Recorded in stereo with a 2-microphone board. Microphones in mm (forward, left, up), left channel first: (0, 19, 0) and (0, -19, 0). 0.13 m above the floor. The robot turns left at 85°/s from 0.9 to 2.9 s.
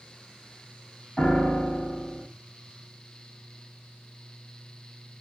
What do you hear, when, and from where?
1.2 s a piano: 160° left, 1.8 m; by 2.3 s 65° left, 1.8 m